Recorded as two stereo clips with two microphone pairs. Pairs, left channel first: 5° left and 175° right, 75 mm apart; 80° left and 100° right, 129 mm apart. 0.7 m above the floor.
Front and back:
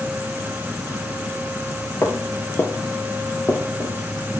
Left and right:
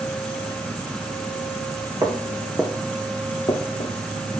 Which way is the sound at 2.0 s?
45° right.